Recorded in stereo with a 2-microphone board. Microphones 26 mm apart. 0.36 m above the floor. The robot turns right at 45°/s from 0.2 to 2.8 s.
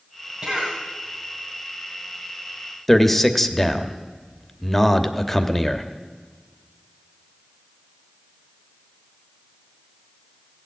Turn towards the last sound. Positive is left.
turn(degrees=10)  # may be behind; listen again after turning